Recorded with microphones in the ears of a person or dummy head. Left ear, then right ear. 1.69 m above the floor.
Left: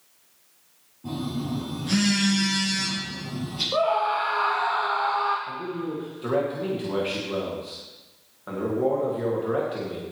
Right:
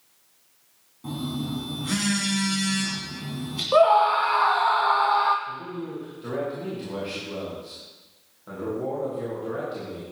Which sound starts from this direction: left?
A man speaking, at 5.5 s.